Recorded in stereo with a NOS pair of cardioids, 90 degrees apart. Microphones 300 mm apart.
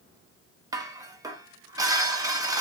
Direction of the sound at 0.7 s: 10° right.